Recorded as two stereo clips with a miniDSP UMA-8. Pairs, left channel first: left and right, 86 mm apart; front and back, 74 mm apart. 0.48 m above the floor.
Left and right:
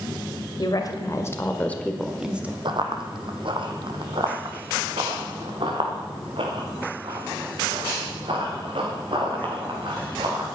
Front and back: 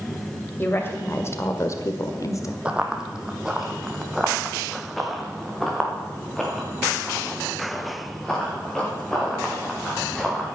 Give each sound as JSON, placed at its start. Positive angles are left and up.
{"t": 0.6, "sound": "a woman speaking", "azimuth_deg": 55, "distance_m": 2.0}
{"t": 2.6, "sound": "running footsteps", "azimuth_deg": -105, "distance_m": 1.3}